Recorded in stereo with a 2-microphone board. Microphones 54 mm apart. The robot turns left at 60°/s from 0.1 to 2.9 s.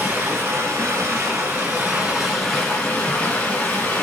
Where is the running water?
45° right, 1.8 m; by 4.0 s 150° left, 1.8 m.